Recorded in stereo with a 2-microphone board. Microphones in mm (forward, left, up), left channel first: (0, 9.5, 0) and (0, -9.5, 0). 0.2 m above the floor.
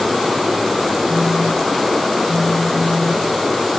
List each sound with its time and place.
1.1 s a phone buzzing: 60° left (ahead or behind), 3.5 m